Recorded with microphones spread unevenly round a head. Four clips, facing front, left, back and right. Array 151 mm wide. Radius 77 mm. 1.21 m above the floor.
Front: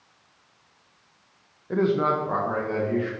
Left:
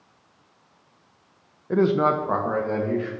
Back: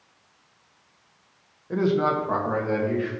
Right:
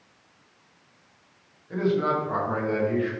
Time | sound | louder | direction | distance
1.7 | a man speaking | left 4 dB, even | 80° left | 0.6 m